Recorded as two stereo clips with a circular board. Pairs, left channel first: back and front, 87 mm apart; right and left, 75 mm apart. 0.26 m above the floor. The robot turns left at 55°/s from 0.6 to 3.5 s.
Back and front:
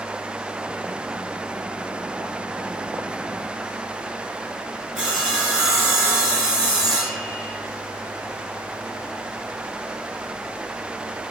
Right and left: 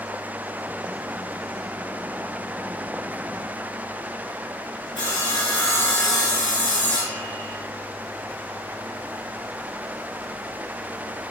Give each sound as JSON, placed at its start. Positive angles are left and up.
{"t": 5.0, "sound": "sawing", "azimuth_deg": -85, "distance_m": 1.6}